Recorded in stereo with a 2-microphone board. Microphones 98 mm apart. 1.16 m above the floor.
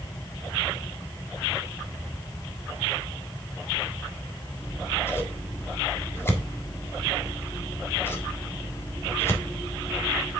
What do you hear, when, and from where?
4.6 s scissors: 25° left (ahead or behind), 1.4 m